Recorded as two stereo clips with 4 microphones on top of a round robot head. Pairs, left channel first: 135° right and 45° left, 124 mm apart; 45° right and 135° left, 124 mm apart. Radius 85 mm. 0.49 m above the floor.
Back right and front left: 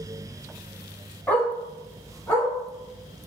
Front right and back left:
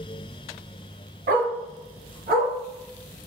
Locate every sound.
1.3 s a dog barking: 145° left, 1.1 m